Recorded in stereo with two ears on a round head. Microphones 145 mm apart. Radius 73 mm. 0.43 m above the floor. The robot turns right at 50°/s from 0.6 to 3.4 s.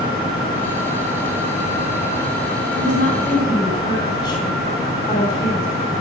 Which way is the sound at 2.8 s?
55° left (ahead or behind).